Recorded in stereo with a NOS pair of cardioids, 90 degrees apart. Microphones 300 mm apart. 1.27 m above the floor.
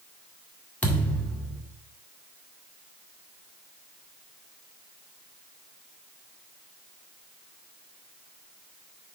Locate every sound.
0.8 s a thud: 5° left, 1.9 m